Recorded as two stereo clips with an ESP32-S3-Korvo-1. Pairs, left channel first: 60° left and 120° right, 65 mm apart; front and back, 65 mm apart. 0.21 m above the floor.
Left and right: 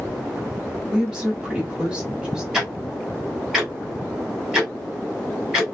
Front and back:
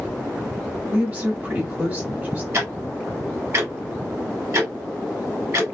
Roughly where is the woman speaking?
Behind.